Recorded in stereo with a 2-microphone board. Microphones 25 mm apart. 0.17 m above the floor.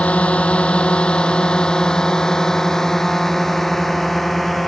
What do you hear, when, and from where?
0.0 s a drone: 60° left (ahead or behind); by 4.7 s centre (ahead or behind)